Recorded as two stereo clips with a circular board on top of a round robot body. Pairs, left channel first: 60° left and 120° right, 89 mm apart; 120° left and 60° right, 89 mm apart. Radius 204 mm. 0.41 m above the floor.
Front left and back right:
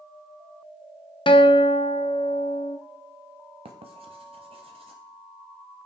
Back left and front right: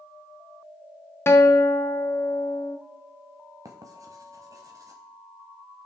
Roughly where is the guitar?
Ahead left.